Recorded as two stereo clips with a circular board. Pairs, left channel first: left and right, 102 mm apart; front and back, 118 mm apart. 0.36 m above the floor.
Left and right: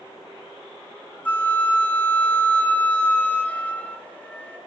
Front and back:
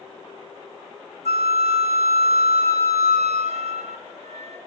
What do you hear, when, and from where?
1.2 s a flute: 165° left, 1.8 m